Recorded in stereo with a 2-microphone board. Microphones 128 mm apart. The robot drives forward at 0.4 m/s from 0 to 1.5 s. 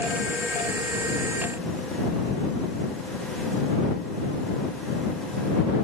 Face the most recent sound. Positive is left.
No sound to turn to.